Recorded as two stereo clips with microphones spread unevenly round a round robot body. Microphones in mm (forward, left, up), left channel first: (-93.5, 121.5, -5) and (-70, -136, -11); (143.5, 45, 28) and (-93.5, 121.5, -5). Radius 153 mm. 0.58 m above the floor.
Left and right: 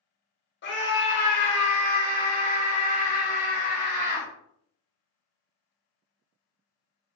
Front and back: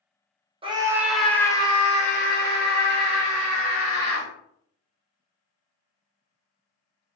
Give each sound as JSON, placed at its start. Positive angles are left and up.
{"t": 0.6, "sound": "a scream", "azimuth_deg": 110, "distance_m": 1.2}